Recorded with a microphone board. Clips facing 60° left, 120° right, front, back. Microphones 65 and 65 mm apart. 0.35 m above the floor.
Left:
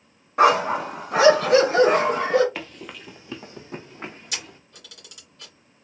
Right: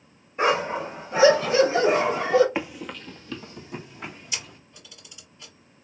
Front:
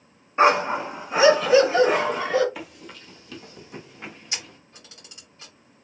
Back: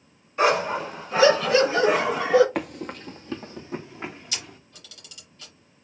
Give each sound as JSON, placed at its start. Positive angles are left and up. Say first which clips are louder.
{"t": 0.4, "sound": "a dog barking", "louder": "left 5 dB, front 3 dB", "azimuth_deg": 60, "distance_m": 1.2}
{"t": 2.5, "sound": "running footsteps", "louder": "right 5 dB, back 9 dB", "azimuth_deg": 175, "distance_m": 0.5}
{"t": 4.3, "sound": "a camera shutter", "louder": "left 1 dB, front 1 dB", "azimuth_deg": 60, "distance_m": 2.5}